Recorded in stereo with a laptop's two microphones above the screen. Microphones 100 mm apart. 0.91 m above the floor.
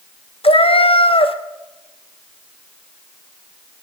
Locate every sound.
0.4 s a cat meowing: 70° left (ahead or behind), 0.7 m